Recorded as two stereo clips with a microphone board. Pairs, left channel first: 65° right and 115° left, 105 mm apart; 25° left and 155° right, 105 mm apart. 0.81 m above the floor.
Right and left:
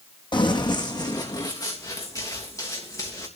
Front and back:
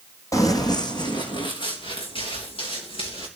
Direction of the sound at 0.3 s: 35° right.